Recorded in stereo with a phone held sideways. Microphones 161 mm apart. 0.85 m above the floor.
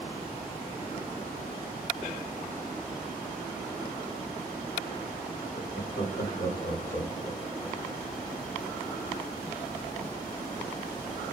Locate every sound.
5.5 s laughter: 65° left (ahead or behind), 5 m; by 7.8 s 75° left (ahead or behind), 3.5 m